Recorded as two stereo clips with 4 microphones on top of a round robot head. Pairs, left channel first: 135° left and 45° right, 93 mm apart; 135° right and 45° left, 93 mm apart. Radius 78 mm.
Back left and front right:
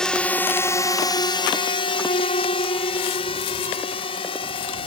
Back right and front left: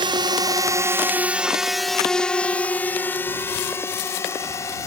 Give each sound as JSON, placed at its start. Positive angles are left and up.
{"t": 0.0, "sound": "a drone", "azimuth_deg": 55}